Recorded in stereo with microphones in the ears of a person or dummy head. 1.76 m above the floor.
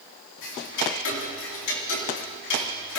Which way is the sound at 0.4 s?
65° left (ahead or behind).